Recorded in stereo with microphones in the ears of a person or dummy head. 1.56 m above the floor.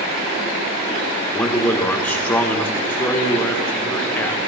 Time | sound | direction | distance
1.3 | a man speaking | 15° left (ahead or behind) | 1.2 m